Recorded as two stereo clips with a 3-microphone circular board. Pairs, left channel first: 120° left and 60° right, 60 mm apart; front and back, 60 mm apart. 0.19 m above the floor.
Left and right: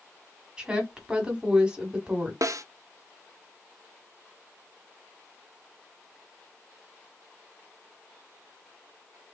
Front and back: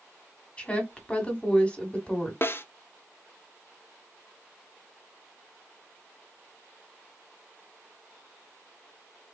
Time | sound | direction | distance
0.6 | a woman speaking | 20° right | 1.3 m
2.4 | a snare drum | 45° right | 0.6 m